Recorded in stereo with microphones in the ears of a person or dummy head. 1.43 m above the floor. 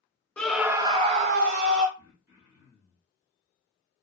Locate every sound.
0.4 s a scream: 10° left (ahead or behind), 0.6 m; by 1.9 s 65° right (ahead or behind), 0.8 m
2.0 s throat clearing: 15° right (ahead or behind), 1.4 m